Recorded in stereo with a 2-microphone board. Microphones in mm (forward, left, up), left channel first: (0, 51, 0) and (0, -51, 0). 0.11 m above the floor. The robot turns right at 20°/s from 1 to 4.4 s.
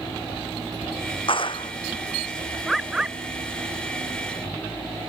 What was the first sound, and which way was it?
A clap, 60° left (ahead or behind).